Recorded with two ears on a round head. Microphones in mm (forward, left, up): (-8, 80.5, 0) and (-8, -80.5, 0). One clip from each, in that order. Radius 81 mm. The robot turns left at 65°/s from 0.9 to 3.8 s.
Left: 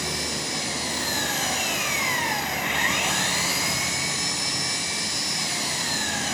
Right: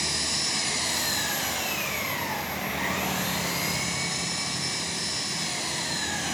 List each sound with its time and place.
0.0 s an engine running: 165° right, 4.5 m; by 6.3 s 10° left, 4.5 m